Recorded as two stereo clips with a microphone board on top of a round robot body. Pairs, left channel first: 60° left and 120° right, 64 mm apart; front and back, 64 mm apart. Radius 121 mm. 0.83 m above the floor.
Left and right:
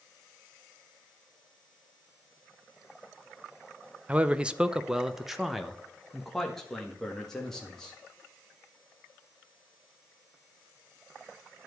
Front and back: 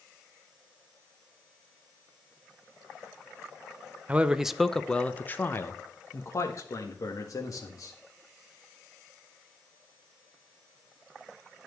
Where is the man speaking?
155° right, 0.9 m; by 8.0 s 20° right, 2.5 m.